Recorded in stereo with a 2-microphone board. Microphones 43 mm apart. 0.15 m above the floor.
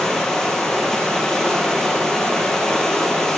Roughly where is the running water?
Centre.